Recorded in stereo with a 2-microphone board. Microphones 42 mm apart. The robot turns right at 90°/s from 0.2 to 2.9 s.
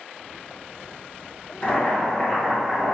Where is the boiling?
25° left (ahead or behind), 1.5 m; by 2.9 s 15° right (ahead or behind), 1.5 m.